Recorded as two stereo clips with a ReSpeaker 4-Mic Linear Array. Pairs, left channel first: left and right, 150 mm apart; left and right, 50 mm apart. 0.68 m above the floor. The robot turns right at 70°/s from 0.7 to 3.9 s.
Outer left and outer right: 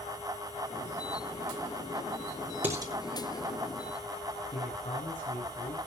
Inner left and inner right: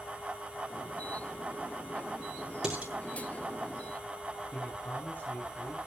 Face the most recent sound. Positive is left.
turn(degrees=45)  # may be behind; listen again after turning